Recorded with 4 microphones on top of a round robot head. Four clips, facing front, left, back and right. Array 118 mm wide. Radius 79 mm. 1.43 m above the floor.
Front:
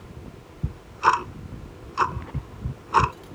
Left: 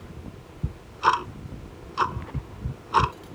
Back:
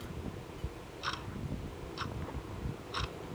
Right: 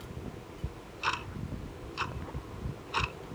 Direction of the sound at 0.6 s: 35° left.